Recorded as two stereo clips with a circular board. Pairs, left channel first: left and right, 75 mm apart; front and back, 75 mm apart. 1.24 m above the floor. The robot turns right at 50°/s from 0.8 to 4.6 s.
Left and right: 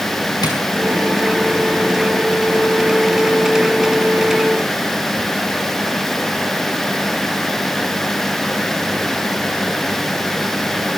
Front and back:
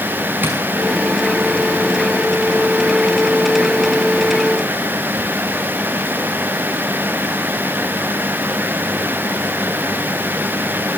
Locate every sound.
0.4 s tapping: 115° left, 6.5 m